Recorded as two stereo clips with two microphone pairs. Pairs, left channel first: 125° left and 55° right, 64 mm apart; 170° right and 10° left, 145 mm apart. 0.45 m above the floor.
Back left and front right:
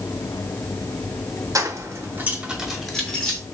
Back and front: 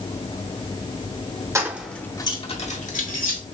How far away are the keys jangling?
About 0.9 m.